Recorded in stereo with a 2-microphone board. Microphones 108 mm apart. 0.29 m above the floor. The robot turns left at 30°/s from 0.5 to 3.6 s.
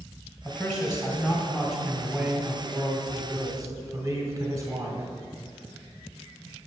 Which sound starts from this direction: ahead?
A man speaking, at 0.5 s.